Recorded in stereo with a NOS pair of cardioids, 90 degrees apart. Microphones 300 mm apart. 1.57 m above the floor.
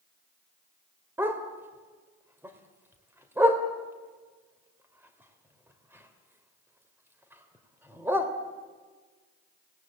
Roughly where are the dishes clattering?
No dishes clattering in this recording.